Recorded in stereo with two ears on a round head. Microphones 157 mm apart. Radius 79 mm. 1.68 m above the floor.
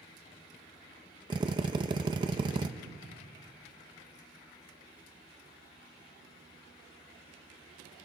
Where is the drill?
25° right (ahead or behind), 1.1 m.